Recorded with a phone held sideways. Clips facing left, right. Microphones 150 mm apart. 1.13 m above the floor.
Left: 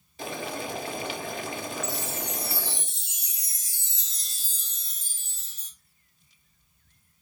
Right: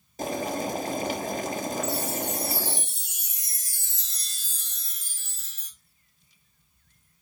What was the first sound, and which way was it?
Boiling, 45° right (ahead or behind).